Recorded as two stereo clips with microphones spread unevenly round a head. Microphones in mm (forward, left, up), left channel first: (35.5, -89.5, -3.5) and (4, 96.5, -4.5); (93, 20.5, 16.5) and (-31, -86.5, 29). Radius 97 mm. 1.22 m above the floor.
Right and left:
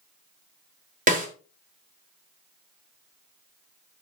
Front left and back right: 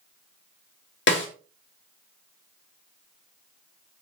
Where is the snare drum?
50° left, 2.5 m.